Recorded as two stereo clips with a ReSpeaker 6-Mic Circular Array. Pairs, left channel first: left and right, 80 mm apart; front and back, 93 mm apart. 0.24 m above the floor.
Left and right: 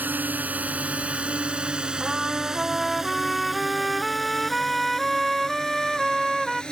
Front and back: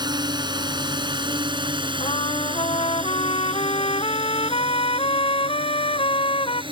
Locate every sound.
0.0 s a drone: 155° right; by 6.7 s 170° left
2.0 s a trumpet: straight ahead